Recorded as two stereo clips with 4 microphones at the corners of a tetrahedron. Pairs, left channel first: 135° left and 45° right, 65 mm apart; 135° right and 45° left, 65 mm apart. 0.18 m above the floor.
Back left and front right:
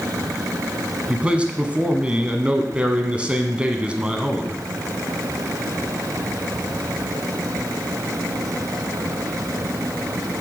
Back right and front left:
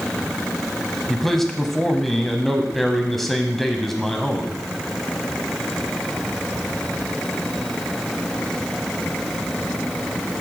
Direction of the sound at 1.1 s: 55° right.